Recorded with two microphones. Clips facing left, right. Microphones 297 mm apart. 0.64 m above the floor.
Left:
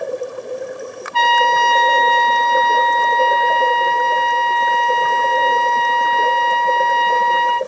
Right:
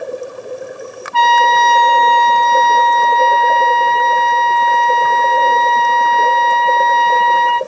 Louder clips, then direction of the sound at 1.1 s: Right 3 dB; 65° right (ahead or behind).